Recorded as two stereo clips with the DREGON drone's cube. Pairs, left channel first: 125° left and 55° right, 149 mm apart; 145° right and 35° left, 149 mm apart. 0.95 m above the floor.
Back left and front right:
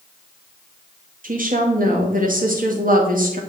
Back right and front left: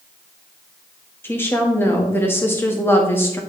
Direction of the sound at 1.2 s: 70° right.